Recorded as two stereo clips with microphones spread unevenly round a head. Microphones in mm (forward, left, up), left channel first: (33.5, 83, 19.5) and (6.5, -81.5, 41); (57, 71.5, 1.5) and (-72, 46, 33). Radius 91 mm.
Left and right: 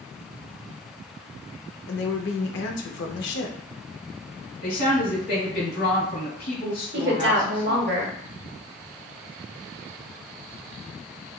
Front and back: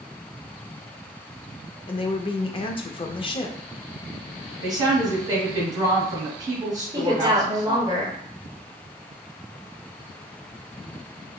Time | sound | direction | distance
1.9 | a woman speaking | 65° left | 0.6 m
4.6 | a woman speaking | 130° left | 1.9 m
6.9 | a woman speaking | 110° right | 0.7 m